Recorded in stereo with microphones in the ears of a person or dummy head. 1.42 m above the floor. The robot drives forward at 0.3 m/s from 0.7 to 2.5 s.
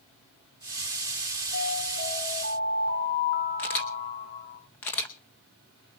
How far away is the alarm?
About 5.5 m.